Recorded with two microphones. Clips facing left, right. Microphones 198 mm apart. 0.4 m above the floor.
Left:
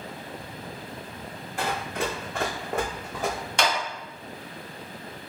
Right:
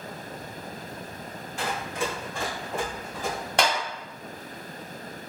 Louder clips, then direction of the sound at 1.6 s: Left 1 dB; 60° left (ahead or behind).